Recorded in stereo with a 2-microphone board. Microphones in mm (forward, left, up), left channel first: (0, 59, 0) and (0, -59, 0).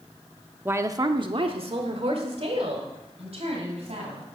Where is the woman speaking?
15° right (ahead or behind), 0.7 m; by 4.2 s 60° right (ahead or behind), 3.5 m.